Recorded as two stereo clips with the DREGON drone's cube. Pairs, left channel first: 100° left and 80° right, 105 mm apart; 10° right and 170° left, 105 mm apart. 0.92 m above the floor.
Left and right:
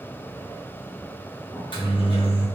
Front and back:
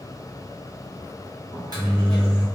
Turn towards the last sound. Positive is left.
turn(degrees=125)